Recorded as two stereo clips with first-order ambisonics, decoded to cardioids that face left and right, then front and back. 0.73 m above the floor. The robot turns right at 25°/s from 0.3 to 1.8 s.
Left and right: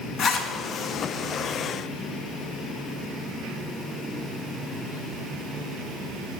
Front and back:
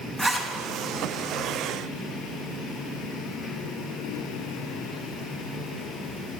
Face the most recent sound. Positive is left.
turn(degrees=140)